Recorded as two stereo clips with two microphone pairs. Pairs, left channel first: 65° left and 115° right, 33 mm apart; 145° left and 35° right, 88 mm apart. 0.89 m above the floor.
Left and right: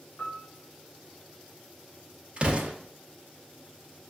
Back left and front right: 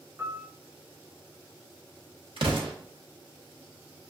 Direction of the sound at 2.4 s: 55° right.